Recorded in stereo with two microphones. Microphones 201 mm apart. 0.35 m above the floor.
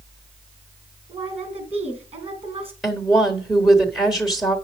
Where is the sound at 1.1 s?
30° right (ahead or behind), 3 m.